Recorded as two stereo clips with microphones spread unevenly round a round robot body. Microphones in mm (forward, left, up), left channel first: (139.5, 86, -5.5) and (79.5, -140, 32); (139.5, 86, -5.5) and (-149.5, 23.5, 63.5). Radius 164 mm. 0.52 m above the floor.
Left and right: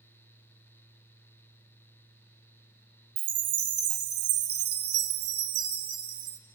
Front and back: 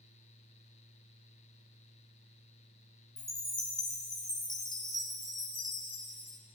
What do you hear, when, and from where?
3.2 s a chime: 75° right, 0.9 m